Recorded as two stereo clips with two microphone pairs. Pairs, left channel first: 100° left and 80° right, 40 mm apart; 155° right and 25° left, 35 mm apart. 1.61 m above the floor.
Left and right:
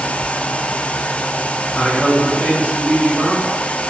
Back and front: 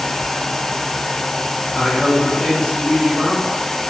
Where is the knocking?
I don't hear knocking.